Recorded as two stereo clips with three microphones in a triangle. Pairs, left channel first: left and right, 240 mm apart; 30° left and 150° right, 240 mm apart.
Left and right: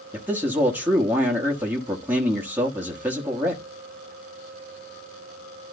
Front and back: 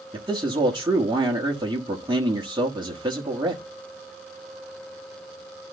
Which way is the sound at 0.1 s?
155° right.